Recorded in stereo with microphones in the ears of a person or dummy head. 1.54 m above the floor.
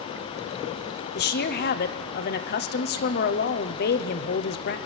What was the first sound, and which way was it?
A woman speaking, 55° left (ahead or behind).